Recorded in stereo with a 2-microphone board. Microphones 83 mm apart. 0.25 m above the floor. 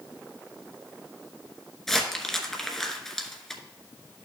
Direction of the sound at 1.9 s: 5° left (ahead or behind).